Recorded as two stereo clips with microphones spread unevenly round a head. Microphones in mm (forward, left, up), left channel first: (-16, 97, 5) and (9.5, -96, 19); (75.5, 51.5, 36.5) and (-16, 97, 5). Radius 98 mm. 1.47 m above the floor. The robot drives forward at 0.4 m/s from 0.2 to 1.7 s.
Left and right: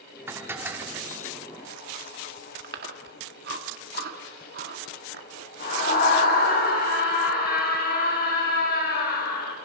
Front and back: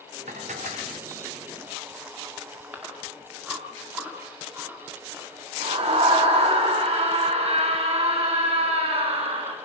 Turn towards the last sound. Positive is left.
turn(degrees=140)